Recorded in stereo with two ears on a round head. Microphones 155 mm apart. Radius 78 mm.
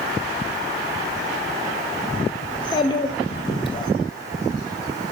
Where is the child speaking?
25° left (ahead or behind), 1.8 m.